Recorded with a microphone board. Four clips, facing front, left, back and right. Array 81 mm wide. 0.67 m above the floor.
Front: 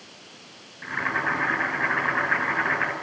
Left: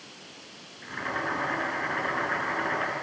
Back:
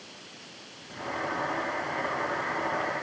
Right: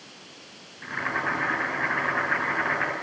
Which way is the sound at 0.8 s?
35° right.